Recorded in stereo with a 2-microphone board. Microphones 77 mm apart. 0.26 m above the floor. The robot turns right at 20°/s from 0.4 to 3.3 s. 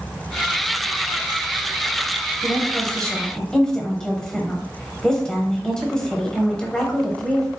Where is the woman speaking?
15° left (ahead or behind), 1.0 m; by 7.5 s 10° left (ahead or behind), 1.0 m.